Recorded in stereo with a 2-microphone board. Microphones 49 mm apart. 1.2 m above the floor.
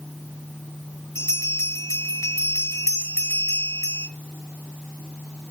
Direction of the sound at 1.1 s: 85° left.